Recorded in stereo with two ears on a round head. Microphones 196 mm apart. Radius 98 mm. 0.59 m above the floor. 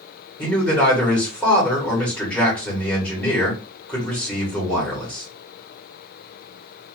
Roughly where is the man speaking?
Centre.